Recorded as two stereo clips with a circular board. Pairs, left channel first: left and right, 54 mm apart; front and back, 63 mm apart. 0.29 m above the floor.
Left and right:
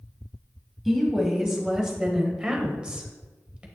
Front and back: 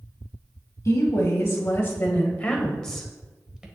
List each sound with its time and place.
0.8 s a woman speaking: 5° right, 1.9 m; by 3.7 s 120° right, 1.3 m